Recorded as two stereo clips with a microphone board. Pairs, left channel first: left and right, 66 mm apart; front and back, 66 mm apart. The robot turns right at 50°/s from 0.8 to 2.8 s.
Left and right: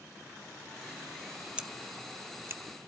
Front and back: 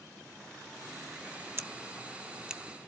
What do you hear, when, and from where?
1.6 s scissors: 155° right, 0.6 m; by 2.6 s 100° right, 0.6 m